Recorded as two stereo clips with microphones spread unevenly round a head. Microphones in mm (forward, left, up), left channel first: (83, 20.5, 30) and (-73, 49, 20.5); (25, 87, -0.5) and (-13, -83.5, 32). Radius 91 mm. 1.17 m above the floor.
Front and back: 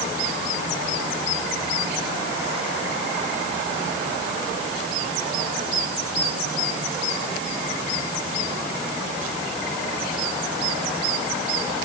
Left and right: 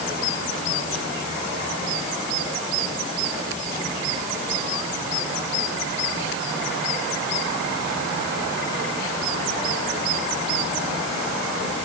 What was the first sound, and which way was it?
Only background noise.